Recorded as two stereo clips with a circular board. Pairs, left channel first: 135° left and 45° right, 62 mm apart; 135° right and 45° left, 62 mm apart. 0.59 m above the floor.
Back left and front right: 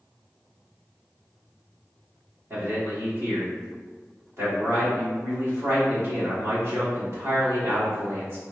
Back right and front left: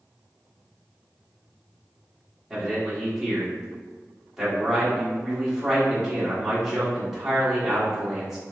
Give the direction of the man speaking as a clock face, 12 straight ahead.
1 o'clock.